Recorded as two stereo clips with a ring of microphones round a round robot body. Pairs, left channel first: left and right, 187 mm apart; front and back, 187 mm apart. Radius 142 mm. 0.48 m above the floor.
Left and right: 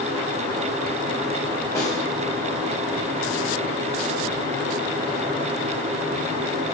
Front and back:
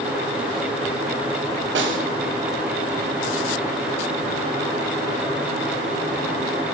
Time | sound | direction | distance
1.8 | a snare drum | 170° left | 1.8 m